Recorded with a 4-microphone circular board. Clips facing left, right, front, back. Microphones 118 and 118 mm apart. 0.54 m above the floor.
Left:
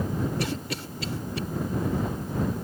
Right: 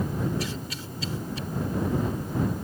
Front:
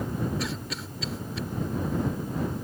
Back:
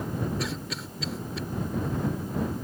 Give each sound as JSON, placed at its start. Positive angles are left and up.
{"t": 0.4, "sound": "a cough", "azimuth_deg": 90}